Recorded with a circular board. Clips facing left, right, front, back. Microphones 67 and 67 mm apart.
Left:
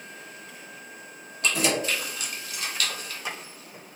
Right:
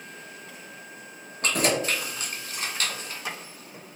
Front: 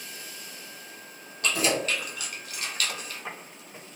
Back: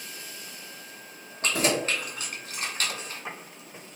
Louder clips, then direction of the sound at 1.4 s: Right 1 dB, back 1 dB; 130° right.